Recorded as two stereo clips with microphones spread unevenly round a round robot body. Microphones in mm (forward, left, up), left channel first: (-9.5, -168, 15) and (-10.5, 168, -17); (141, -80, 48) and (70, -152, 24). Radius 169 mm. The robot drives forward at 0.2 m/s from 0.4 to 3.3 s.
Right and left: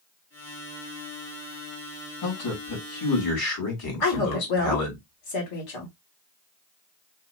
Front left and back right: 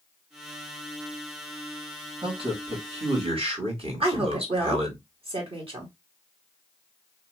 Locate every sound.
2.2 s a man speaking: 115° right, 2 m; by 5.0 s 120° right, 2 m
4.0 s a woman speaking: 115° right, 2.0 m